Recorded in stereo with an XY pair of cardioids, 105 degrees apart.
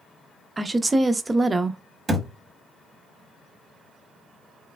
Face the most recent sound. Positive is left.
turn(degrees=-30)